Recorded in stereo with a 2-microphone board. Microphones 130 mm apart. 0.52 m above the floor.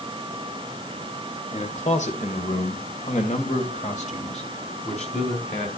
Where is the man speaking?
60° left (ahead or behind), 1.6 m; by 5.7 s 55° left (ahead or behind), 3 m.